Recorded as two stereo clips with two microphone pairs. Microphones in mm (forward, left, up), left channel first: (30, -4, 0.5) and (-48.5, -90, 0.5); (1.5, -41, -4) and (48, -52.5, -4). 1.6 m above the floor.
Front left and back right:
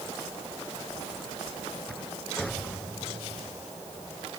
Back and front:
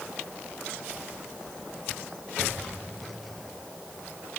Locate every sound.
Only background noise.